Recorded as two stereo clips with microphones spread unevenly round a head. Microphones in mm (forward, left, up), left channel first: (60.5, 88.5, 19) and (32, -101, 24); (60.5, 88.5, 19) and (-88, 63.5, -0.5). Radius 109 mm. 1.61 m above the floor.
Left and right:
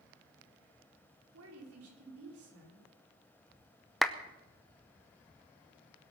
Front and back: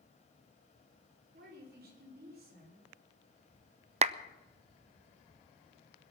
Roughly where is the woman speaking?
Behind right.